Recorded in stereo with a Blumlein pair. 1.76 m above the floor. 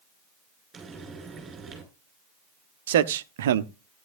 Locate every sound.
0.7 s frying: 20° right, 6 m
2.9 s a man speaking: 60° right, 0.8 m